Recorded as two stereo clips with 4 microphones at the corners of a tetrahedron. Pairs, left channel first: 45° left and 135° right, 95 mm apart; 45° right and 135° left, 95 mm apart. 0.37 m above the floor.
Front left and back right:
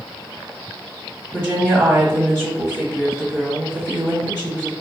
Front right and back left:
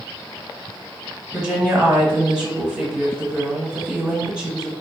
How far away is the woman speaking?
About 1.0 m.